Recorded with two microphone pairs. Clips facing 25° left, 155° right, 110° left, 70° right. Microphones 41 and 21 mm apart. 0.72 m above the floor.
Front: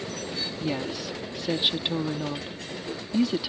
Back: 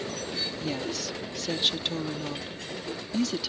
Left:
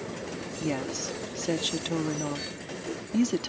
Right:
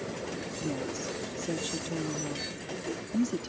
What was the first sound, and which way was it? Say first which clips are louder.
A woman speaking: front 4 dB, left 4 dB; 90° left.